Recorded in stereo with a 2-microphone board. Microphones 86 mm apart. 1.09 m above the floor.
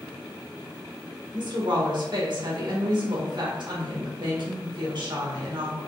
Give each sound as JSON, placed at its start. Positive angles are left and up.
{"t": 1.3, "sound": "a woman speaking", "side_deg": -65, "distance_m": 1.4}